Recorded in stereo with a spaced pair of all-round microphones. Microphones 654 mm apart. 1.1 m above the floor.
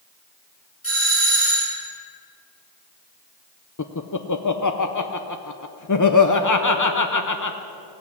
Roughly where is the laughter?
Left.